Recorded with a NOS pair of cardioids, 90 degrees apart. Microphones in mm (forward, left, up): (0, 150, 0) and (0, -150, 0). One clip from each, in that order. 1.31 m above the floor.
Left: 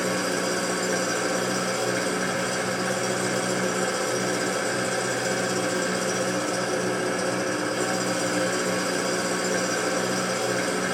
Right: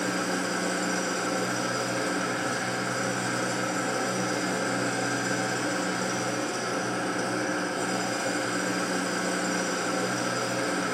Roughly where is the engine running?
Ahead left.